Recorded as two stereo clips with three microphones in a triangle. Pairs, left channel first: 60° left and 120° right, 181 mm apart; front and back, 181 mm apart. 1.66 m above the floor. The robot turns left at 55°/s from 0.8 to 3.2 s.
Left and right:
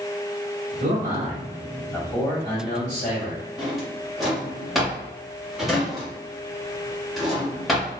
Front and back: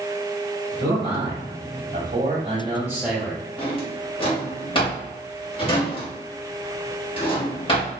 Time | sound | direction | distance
0.8 | a man speaking | 140° right | 1.8 m
3.6 | a drawer | 30° right | 1.2 m